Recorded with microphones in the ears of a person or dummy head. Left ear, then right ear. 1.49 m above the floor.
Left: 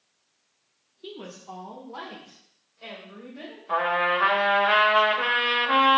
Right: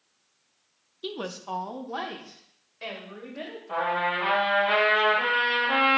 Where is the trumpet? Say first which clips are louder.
Left 3 dB; 50° left (ahead or behind), 1.3 m.